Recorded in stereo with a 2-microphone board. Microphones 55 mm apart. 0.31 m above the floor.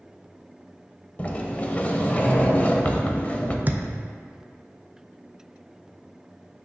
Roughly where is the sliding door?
Left.